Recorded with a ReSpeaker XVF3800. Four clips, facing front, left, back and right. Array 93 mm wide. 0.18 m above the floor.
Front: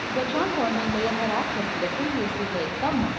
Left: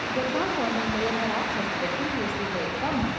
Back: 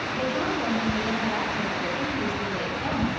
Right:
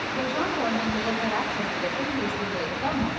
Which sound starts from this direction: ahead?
A woman speaking, at 0.1 s.